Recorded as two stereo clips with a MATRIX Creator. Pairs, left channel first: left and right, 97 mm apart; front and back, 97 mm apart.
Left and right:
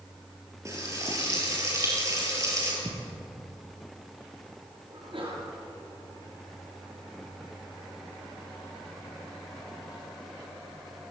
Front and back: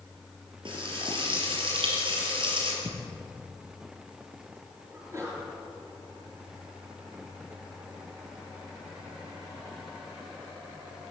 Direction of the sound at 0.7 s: 150° right.